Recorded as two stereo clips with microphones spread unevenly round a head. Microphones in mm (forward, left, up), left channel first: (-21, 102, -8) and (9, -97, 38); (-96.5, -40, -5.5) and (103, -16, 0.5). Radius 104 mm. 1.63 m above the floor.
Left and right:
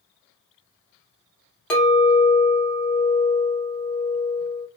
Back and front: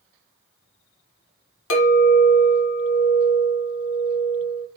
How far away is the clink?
About 1.0 m.